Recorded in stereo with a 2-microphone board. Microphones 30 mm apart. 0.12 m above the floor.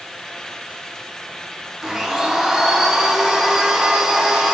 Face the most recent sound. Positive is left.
turn(degrees=-15)  # may be behind; listen again after turning